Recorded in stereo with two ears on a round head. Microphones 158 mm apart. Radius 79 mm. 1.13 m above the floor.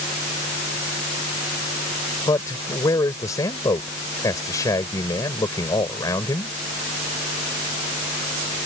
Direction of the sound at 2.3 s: 20° left (ahead or behind).